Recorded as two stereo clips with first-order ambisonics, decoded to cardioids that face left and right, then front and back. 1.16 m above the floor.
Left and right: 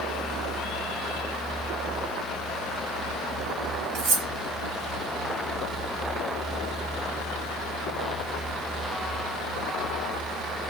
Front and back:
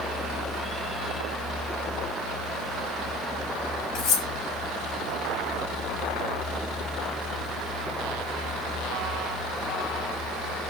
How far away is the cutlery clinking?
About 1.0 m.